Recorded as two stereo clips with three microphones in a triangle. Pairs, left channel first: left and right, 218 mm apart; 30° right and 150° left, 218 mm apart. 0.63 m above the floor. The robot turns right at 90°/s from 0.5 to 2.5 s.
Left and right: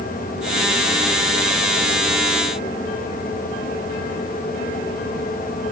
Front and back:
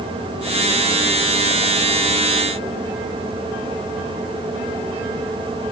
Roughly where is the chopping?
I don't hear chopping.